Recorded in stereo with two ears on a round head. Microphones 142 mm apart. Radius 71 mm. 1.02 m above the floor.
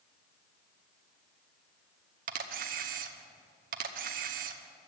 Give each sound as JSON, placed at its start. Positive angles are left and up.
{"t": 2.3, "sound": "a camera shutter", "side_deg": -55, "distance_m": 0.9}